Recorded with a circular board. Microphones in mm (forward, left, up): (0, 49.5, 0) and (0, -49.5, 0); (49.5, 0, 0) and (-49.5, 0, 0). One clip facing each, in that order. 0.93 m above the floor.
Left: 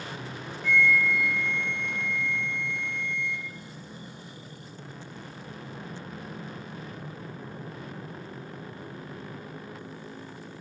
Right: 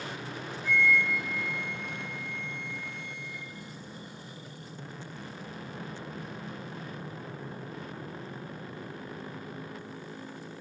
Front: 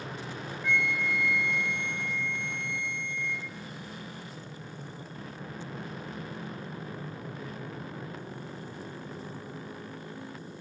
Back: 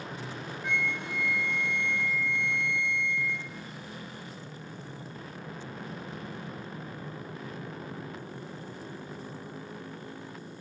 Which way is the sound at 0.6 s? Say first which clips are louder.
Left 3 dB, front 3 dB; 105° left.